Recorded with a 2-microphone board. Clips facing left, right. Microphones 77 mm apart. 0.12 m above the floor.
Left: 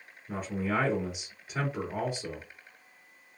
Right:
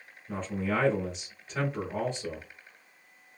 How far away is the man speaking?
About 1.2 m.